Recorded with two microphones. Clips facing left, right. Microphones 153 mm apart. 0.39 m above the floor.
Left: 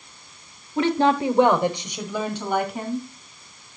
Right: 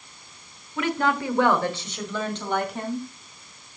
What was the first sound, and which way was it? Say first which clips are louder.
A woman speaking: left 5 dB; 30° left (ahead or behind).